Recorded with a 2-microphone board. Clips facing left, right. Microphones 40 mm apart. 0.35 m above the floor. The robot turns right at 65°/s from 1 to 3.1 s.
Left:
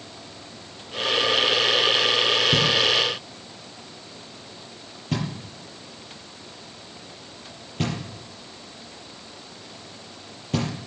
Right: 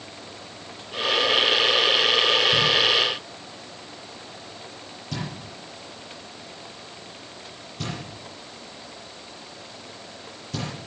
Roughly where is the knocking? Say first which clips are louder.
Even; left.